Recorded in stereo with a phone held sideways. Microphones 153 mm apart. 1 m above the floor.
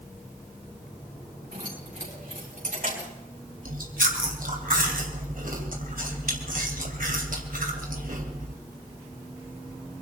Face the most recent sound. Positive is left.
turn(degrees=-75)  # may be behind; listen again after turning